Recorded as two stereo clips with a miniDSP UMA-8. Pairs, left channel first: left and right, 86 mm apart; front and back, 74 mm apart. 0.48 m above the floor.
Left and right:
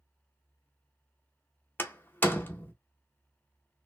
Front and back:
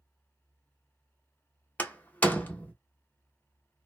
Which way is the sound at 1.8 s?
45° left.